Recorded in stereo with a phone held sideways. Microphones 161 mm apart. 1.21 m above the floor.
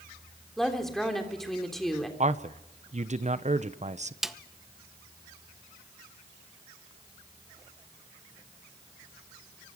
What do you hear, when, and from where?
0.6 s a woman speaking: centre (ahead or behind), 3 m
2.2 s a man speaking: 45° right (ahead or behind), 0.9 m
4.2 s a snare drum: centre (ahead or behind), 0.8 m